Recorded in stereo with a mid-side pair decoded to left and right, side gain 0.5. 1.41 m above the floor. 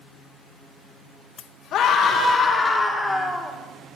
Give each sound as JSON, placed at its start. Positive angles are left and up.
{"t": 1.7, "sound": "a scream", "azimuth_deg": 70, "distance_m": 1.2}